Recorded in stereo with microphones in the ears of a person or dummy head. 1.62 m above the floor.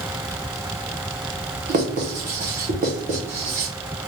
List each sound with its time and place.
1.7 s writing: 30° right (ahead or behind), 0.7 m